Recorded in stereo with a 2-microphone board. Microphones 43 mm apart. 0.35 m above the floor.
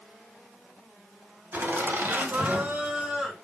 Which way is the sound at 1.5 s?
60° right (ahead or behind).